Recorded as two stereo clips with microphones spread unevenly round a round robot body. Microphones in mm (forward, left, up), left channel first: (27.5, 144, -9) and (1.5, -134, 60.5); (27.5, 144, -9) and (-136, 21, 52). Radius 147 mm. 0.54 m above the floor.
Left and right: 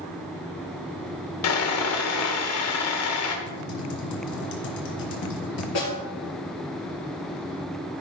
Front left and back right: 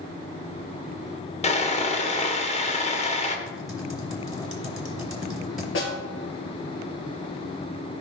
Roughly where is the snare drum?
Ahead left.